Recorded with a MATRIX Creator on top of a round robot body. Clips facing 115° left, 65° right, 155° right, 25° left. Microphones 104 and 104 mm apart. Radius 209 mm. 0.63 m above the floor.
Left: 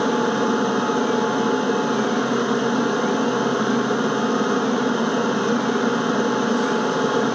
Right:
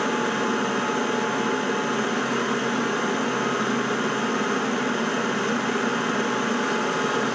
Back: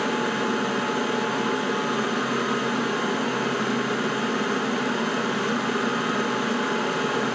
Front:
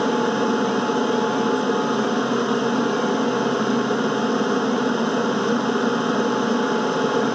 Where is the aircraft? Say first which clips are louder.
Left 5 dB, front 5 dB; 60° left.